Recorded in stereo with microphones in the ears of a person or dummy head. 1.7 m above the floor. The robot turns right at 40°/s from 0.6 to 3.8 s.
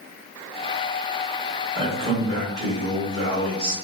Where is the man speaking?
155° right, 1.7 m; by 3.7 s 80° right, 1.7 m.